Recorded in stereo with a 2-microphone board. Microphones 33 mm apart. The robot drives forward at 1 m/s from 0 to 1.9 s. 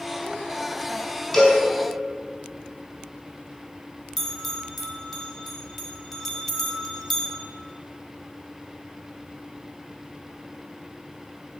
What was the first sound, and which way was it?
A cowbell, 15° left (ahead or behind).